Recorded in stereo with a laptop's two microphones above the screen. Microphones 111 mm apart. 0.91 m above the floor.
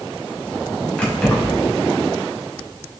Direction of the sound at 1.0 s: 10° left (ahead or behind).